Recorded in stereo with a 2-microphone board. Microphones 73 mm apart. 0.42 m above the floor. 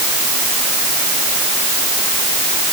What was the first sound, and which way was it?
Only background noise.